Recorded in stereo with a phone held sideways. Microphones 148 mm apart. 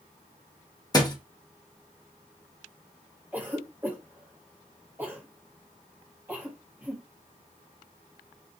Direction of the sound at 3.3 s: 15° right (ahead or behind).